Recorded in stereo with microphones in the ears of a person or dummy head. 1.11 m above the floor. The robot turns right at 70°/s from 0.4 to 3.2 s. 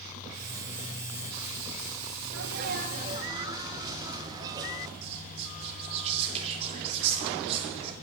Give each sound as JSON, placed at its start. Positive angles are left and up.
{"t": 2.3, "sound": "a sneeze", "azimuth_deg": -85, "distance_m": 1.0}
{"t": 5.0, "sound": "whispering", "side_deg": -35, "distance_m": 2.0}